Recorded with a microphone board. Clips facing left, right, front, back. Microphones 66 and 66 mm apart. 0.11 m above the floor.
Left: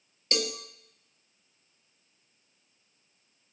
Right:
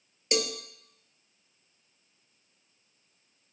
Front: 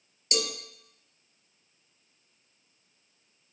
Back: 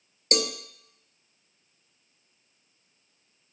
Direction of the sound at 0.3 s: 160° right.